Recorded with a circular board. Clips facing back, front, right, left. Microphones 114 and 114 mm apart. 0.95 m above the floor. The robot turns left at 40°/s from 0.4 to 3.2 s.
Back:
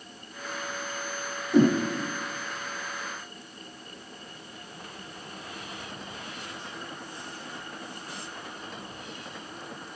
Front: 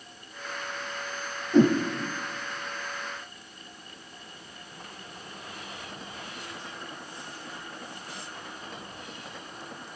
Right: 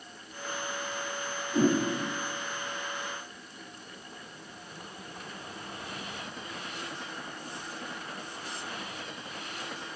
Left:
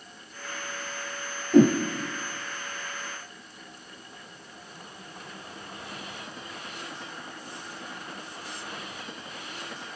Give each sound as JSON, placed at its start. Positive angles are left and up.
{"t": 1.5, "sound": "a whoosh", "azimuth_deg": 100, "distance_m": 5.0}